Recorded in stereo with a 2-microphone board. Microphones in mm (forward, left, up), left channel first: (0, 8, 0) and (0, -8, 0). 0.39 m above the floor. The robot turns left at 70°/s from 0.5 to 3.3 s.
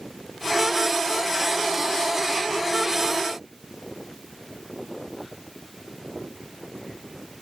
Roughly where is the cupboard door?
No cupboard door in this recording.